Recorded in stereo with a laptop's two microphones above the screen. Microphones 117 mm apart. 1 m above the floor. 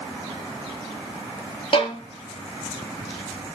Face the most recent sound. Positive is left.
turn(degrees=45)  # may be behind; listen again after turning